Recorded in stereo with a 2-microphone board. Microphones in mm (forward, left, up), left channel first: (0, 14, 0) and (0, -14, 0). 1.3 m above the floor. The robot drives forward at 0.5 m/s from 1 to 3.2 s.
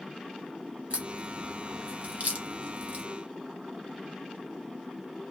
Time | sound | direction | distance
0.9 | a crack | 50° right (ahead or behind) | 1.2 m